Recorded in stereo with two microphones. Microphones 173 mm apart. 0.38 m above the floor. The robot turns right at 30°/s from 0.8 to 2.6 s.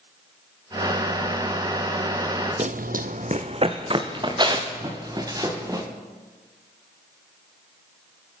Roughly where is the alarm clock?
I don't hear an alarm clock.